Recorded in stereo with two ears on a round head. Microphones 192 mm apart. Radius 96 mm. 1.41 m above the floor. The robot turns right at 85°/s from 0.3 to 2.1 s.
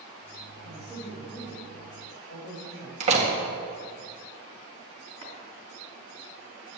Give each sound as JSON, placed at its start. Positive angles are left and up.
{"t": 0.6, "sound": "a woman speaking", "azimuth_deg": -35, "distance_m": 3.5}
{"t": 3.0, "sound": "a door slam", "side_deg": -30, "distance_m": 1.7}
{"t": 5.2, "sound": "chopping", "side_deg": -30, "distance_m": 3.0}